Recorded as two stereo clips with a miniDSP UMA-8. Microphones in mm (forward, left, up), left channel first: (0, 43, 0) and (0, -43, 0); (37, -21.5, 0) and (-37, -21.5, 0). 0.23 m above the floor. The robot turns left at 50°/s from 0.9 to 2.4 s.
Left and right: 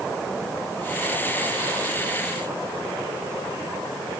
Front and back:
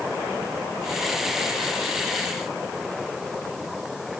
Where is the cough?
I don't hear a cough.